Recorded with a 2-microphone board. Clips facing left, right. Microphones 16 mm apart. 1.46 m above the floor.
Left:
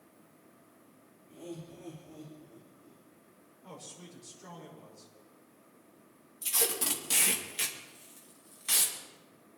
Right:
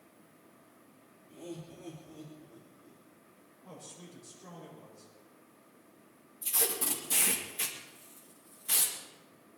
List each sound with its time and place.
1.3 s laughter: centre (ahead or behind), 2.5 m; by 3.0 s 10° right (ahead or behind), 3.5 m
3.6 s a man speaking: 55° left (ahead or behind), 6.5 m
6.4 s tape being pulled: 50° left (ahead or behind), 2.5 m